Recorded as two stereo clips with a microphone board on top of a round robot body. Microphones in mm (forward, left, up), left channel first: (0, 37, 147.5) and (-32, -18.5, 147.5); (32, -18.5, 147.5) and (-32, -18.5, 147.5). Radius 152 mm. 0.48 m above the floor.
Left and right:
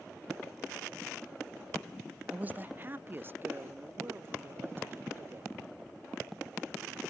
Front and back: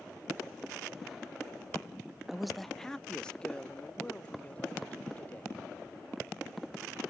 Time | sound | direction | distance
2.3 | a man speaking | 100° right | 0.7 m